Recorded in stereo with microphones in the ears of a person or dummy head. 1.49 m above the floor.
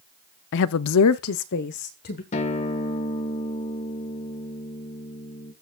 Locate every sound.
0.5 s a woman speaking: 55° left (ahead or behind), 0.6 m; by 2.2 s 45° left (ahead or behind), 1.3 m
2.3 s a guitar: 35° left (ahead or behind), 1.4 m